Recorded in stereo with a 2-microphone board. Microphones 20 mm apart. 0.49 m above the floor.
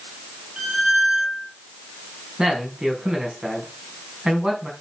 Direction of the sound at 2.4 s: 35° right (ahead or behind).